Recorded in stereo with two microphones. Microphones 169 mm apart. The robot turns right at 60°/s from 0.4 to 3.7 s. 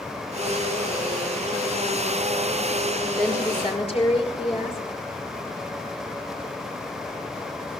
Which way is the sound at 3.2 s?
5° left.